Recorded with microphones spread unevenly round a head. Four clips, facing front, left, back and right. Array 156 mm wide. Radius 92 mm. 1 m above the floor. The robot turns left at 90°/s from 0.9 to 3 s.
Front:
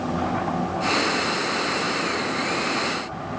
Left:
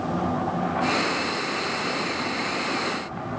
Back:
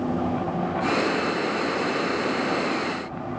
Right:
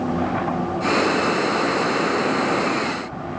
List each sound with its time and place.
Only background noise.